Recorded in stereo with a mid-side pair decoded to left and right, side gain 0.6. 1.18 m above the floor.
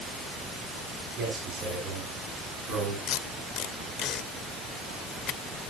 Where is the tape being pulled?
50° left, 1.1 m.